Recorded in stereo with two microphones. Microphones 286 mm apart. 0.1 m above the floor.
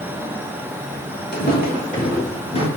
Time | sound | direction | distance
1.3 | footsteps | 35° left (ahead or behind) | 3.5 m